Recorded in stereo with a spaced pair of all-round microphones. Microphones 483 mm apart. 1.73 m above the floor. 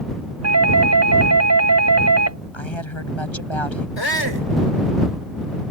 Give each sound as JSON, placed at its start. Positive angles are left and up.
{"t": 0.4, "sound": "a doorbell", "side_deg": -35}
{"t": 2.5, "sound": "a woman speaking", "side_deg": 70}
{"t": 4.0, "sound": "a shout", "side_deg": 60}